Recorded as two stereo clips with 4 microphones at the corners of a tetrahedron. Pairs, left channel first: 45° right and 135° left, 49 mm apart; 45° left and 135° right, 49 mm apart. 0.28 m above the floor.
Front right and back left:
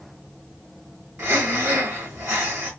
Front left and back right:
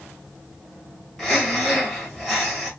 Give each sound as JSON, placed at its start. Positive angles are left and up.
{"t": 1.2, "sound": "breathing", "azimuth_deg": 130, "distance_m": 2.0}